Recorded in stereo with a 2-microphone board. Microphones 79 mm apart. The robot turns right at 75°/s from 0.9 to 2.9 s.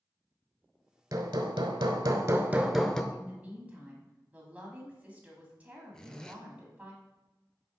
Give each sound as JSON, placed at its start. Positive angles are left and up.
{"t": 1.1, "sound": "hammering", "azimuth_deg": -130, "distance_m": 0.7}
{"t": 3.1, "sound": "a woman speaking", "side_deg": -20, "distance_m": 1.7}
{"t": 5.9, "sound": "a zipper", "side_deg": 10, "distance_m": 0.7}